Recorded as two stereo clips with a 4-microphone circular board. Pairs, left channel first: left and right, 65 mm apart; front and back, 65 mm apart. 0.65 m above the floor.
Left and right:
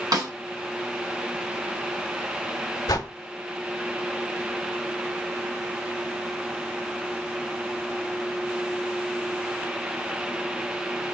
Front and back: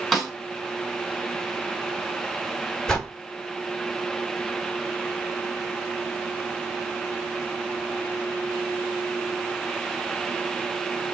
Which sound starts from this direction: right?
A snare drum, at 0.1 s.